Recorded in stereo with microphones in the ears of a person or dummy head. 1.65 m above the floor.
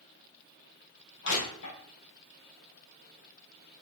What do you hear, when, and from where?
1.2 s crushing: 60° left (ahead or behind), 4.5 m